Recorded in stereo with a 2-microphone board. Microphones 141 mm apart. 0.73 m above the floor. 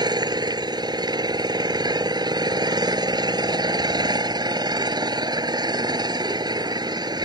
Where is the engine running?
30° right (ahead or behind).